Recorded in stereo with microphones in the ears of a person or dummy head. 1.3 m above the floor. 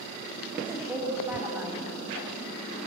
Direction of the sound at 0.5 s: 10° right (ahead or behind).